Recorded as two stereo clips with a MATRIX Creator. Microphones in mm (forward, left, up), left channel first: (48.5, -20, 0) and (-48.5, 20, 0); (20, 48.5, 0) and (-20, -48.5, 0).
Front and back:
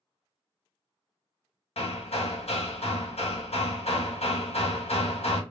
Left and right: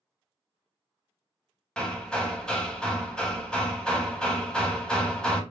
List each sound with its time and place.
1.8 s hammering: 15° right, 0.6 m